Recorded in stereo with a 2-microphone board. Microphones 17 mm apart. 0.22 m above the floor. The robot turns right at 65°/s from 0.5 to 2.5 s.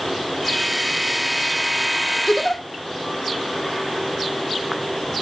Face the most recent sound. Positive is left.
turn(degrees=40)  # may be behind; listen again after turning